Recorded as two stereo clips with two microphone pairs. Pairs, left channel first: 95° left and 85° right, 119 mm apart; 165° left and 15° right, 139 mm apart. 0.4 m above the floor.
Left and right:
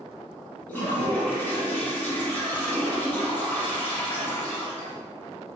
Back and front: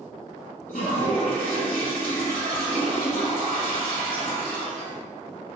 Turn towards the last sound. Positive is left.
turn(degrees=170)